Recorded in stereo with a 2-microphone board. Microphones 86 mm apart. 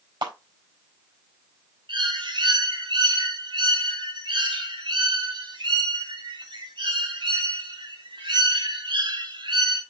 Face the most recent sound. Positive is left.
turn(degrees=-75)  # may be behind; listen again after turning